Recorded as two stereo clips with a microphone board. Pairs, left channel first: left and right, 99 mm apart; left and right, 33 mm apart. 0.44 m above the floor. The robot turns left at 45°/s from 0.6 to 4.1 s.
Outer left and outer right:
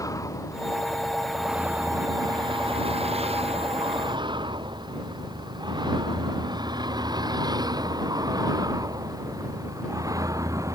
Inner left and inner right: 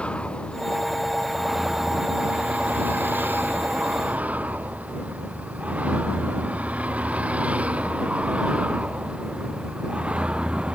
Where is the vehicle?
35° left (ahead or behind); by 10.7 s 30° right (ahead or behind).